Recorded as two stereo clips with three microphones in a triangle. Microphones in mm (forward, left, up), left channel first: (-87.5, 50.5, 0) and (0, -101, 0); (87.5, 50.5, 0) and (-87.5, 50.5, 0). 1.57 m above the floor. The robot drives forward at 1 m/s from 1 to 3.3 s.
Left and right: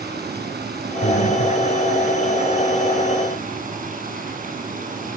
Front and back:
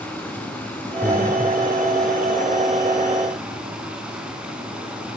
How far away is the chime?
I don't hear a chime.